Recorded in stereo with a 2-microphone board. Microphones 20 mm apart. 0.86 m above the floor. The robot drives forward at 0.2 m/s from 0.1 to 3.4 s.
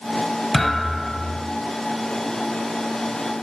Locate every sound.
0.5 s a thud: 5° right (ahead or behind), 1.2 m